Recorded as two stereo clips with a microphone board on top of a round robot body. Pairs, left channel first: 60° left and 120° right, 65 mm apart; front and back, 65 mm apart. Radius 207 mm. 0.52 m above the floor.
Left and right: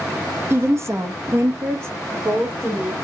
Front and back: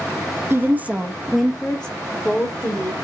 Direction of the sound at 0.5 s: 150° right.